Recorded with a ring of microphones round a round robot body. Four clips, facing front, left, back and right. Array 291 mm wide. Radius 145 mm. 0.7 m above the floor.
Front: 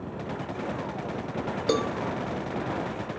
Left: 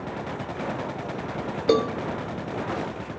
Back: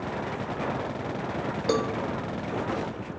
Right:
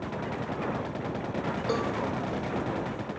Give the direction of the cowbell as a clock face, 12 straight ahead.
9 o'clock.